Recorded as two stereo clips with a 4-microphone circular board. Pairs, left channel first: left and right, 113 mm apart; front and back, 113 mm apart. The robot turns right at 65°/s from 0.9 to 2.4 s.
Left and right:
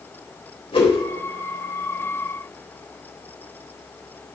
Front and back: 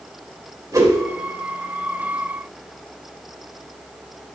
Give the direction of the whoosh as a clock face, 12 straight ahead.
8 o'clock.